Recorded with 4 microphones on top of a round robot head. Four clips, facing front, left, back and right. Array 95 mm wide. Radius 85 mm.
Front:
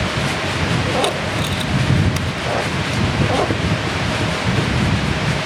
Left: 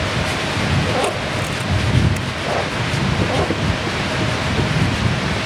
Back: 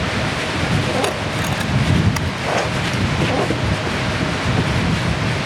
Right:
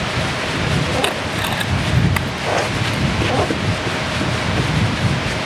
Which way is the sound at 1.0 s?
120° right.